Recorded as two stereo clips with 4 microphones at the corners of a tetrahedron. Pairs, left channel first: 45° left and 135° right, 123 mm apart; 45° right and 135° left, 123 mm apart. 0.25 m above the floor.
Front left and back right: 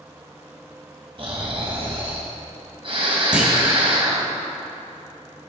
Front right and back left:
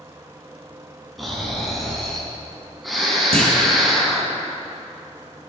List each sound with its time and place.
1.2 s snoring: 135° right, 2 m
3.3 s a clunk: 145° left, 2 m